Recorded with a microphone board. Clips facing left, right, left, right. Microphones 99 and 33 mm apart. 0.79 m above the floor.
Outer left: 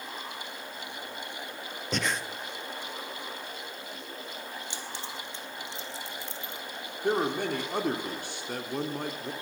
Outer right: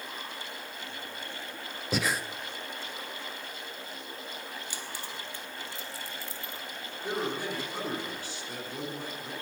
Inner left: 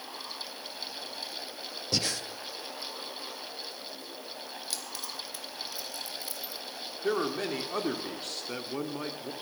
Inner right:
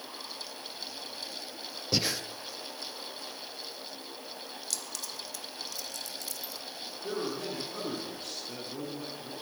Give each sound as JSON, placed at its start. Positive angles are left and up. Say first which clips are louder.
{"t": 1.9, "sound": "breathing", "louder": "outer right 1 dB, inner right 1 dB", "side_deg": -5, "distance_m": 0.6}
{"t": 4.7, "sound": "keys jangling", "louder": "outer left 1 dB, inner left 1 dB", "side_deg": 25, "distance_m": 1.2}
{"t": 7.0, "sound": "a man speaking", "louder": "outer left 5 dB, inner left 5 dB", "side_deg": 60, "distance_m": 1.6}